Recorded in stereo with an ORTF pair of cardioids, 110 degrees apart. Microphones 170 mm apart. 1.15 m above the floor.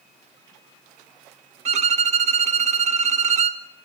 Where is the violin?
40° right, 1.5 m.